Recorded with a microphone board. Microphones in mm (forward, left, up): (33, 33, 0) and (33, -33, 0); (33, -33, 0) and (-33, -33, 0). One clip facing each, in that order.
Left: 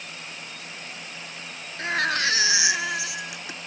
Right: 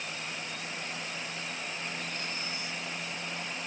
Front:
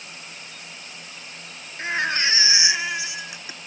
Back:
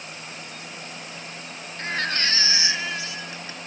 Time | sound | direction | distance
1.8 | a baby crying | 75° left | ?